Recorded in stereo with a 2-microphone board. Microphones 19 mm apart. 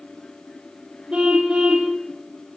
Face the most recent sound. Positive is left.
turn(degrees=-55)  # may be behind; listen again after turning